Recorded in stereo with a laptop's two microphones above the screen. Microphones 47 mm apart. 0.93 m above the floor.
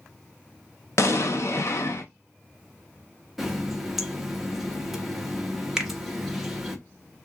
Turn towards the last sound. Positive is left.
turn(degrees=-10)  # may be behind; listen again after turning